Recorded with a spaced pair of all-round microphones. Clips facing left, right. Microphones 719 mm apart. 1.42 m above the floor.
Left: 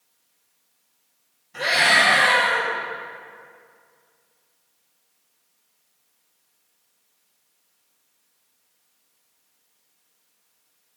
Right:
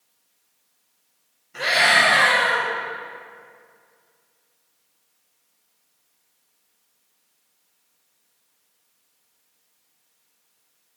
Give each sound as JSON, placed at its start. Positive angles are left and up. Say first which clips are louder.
{"t": 1.5, "sound": "a scream", "louder": "even", "side_deg": 25, "distance_m": 6.0}